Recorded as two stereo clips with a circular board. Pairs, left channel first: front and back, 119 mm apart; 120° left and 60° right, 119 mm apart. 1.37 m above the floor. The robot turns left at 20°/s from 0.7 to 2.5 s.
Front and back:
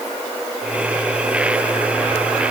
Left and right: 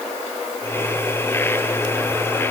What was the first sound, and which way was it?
Only background noise.